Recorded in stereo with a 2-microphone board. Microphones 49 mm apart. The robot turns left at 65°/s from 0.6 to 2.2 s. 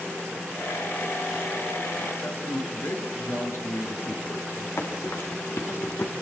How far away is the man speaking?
About 6 m.